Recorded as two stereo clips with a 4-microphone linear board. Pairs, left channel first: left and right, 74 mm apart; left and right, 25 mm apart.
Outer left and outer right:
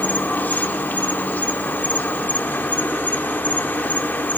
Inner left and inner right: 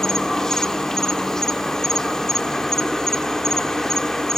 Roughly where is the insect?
Left.